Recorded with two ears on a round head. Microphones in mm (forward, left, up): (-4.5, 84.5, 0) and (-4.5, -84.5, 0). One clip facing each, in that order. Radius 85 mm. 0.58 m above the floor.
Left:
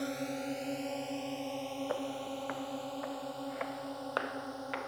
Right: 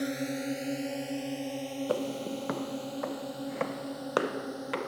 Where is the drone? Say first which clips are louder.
Right 4 dB; 20° right (ahead or behind).